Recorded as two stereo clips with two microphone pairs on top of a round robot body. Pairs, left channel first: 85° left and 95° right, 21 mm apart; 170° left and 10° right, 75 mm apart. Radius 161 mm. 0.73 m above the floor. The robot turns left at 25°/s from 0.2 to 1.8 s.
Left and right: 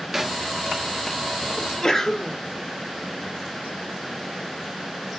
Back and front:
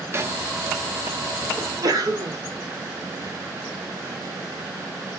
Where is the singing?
I don't hear singing.